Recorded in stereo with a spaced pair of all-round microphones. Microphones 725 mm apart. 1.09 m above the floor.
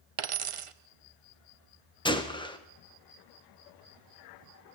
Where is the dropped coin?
50° right (ahead or behind), 0.5 m.